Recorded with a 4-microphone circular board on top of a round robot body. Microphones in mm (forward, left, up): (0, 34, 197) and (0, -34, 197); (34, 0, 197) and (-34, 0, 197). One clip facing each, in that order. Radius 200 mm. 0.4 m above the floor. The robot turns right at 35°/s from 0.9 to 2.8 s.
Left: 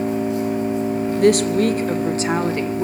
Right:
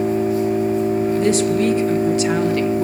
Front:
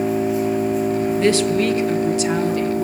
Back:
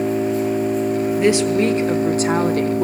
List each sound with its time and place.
0.0 s an engine running: 90° left, 8 m; by 2.9 s 155° left, 8 m
1.2 s a woman speaking: 105° left, 1.5 m; by 2.9 s 160° left, 1.5 m